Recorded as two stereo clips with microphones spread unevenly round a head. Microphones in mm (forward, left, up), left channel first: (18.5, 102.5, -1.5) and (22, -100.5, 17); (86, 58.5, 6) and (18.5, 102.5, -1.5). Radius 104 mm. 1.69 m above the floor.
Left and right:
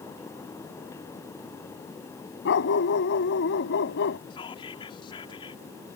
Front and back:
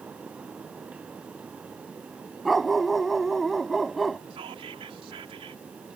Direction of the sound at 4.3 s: 160° left.